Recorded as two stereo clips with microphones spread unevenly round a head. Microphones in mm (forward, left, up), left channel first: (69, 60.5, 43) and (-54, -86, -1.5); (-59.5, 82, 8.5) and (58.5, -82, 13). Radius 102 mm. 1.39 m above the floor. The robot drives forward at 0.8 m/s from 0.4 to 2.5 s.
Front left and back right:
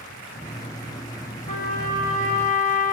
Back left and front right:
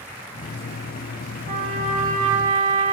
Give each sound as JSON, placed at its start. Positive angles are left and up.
{"t": 1.5, "sound": "a trumpet", "azimuth_deg": 0, "distance_m": 3.0}